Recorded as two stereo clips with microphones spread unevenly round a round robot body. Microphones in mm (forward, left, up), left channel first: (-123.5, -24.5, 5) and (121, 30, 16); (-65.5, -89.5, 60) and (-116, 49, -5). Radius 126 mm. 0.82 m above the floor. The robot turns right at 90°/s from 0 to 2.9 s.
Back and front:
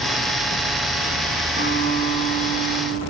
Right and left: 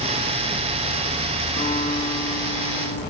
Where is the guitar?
55° right, 3 m; by 3.0 s 65° left, 3 m.